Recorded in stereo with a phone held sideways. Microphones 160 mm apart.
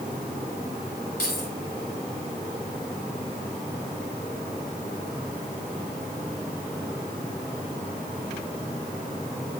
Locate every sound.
1.2 s keys jangling: 80° left, 7.5 m